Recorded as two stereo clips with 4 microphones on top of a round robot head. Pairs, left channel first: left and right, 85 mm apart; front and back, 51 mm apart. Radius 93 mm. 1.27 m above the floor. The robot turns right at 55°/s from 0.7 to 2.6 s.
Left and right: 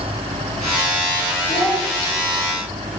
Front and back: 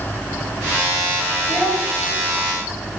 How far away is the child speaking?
About 1.8 m.